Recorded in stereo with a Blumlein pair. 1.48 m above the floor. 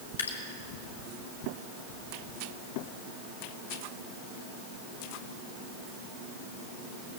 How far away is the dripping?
About 2.0 m.